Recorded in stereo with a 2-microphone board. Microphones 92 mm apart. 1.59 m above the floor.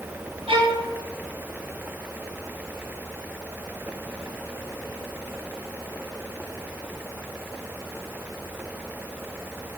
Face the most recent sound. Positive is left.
turn(degrees=-80)